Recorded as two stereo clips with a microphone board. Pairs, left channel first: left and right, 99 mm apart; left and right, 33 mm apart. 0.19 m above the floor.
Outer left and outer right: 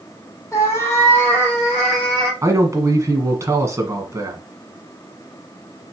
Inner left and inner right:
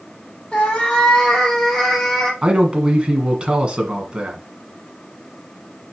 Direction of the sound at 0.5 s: 30° left (ahead or behind).